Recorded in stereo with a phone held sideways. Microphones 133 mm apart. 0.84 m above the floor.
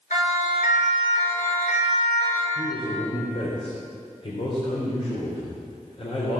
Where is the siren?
70° left (ahead or behind), 3.5 m; by 2.5 s 75° left (ahead or behind), 4 m.